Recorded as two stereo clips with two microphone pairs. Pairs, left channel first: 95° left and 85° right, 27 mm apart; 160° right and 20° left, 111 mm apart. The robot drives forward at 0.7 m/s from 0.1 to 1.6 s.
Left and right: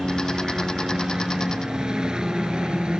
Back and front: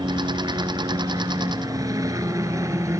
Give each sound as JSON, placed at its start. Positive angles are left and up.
{"t": 0.0, "sound": "a helicopter", "azimuth_deg": -20}